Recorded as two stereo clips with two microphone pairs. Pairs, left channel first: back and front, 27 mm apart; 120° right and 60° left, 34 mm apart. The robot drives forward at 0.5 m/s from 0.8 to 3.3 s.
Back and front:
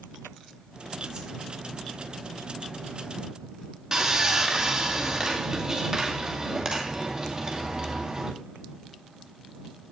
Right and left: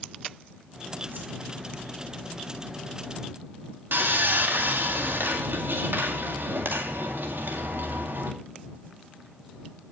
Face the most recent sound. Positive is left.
turn(degrees=65)